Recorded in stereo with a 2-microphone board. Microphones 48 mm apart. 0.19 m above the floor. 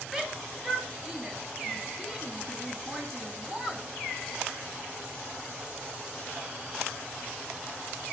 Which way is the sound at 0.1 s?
10° right (ahead or behind).